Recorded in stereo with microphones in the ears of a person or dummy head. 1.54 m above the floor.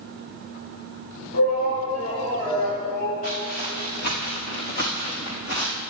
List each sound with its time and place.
1.3 s a shout: 60° left (ahead or behind), 6 m; by 3.1 s 45° left (ahead or behind), 8 m
3.2 s footsteps: 50° left (ahead or behind), 5.5 m; by 5.8 s 65° left (ahead or behind), 4.5 m